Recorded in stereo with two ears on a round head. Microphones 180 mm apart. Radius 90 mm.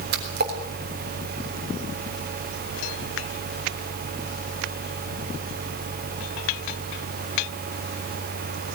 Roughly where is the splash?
Right.